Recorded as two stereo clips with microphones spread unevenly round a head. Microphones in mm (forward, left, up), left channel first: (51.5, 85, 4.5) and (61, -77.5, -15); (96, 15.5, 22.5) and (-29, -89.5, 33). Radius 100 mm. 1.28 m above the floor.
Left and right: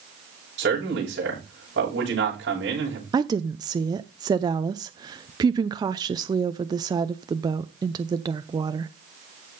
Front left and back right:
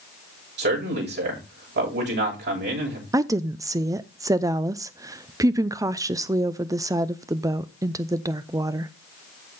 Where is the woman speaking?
80° right, 0.5 m.